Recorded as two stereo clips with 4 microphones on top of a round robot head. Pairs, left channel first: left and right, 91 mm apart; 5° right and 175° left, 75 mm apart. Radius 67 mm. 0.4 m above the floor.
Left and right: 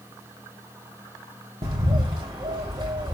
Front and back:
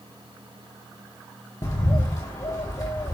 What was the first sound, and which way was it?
A bird, 50° right.